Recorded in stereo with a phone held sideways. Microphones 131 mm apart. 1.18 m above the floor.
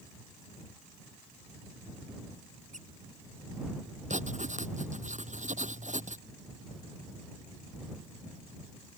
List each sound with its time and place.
2.7 s a squeak: 75° right (ahead or behind)
4.1 s writing: 70° right (ahead or behind)